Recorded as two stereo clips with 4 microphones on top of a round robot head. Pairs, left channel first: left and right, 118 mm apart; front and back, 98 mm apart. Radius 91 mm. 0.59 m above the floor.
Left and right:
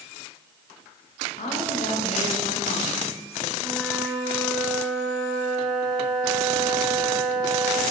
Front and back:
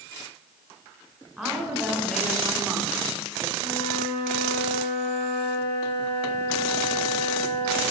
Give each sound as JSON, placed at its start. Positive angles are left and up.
{"t": 1.4, "sound": "a woman speaking", "azimuth_deg": 90, "distance_m": 3.0}
{"t": 3.6, "sound": "a flute", "azimuth_deg": -20, "distance_m": 3.0}